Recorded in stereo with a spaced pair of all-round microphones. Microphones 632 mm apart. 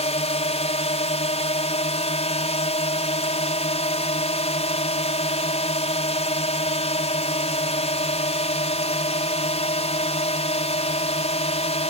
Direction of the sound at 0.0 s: 10° left (ahead or behind).